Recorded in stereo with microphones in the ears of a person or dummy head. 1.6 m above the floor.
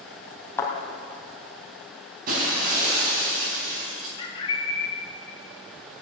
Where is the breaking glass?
45° right (ahead or behind), 4 m.